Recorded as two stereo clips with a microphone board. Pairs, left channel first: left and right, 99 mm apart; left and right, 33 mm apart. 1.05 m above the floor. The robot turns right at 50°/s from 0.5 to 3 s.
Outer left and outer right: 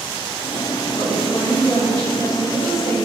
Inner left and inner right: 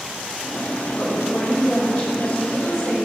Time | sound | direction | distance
1.0 | a woman speaking | 120° left | 3.5 m